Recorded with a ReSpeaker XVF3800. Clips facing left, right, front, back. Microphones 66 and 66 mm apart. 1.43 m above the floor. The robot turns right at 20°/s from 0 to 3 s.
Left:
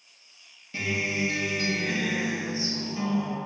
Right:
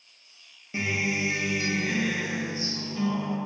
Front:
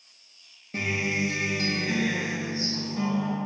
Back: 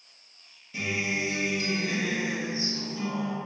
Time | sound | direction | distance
0.7 | a guitar | 25° right | 0.6 m